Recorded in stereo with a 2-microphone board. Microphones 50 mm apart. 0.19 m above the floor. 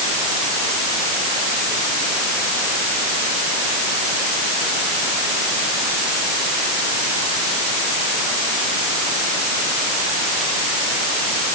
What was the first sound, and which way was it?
Only background noise.